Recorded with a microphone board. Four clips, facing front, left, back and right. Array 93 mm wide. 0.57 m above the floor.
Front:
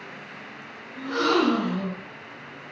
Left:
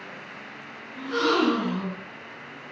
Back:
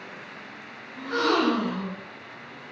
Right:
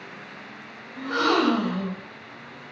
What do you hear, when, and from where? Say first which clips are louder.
1.0 s a gasp: right 1 dB, front 1 dB; 85° right, 0.7 m